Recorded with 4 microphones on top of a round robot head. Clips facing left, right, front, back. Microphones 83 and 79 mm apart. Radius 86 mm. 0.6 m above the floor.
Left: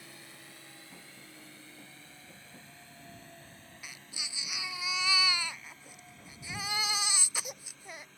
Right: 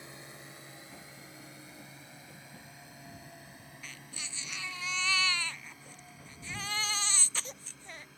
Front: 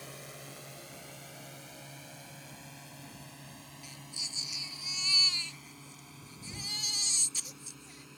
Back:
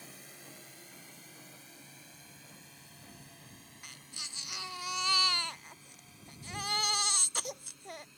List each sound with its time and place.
0.0 s a drone: 20° right; by 8.2 s 10° right
3.8 s a baby crying: 165° left